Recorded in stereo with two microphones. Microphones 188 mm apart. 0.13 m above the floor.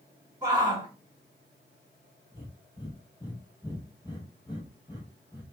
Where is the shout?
25° right (ahead or behind), 1.8 m.